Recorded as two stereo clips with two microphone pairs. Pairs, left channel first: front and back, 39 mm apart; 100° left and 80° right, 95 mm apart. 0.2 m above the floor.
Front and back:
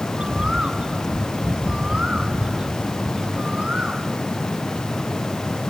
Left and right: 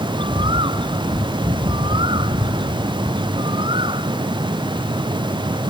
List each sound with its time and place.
0.2 s a bird: 110° right